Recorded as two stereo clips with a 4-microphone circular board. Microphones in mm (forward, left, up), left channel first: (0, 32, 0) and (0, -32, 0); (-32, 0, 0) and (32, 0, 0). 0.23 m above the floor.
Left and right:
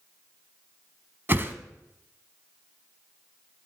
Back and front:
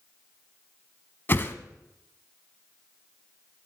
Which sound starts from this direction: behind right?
A whoosh, at 1.3 s.